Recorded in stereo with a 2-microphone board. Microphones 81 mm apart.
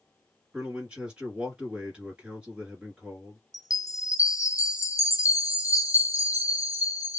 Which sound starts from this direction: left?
A chime, at 3.5 s.